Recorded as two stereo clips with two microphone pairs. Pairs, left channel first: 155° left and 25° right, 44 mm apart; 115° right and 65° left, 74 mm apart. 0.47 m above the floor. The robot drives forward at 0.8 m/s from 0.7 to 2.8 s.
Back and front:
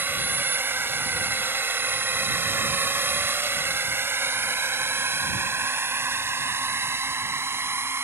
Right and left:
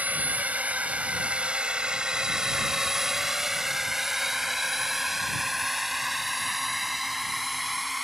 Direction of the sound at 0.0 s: Straight ahead.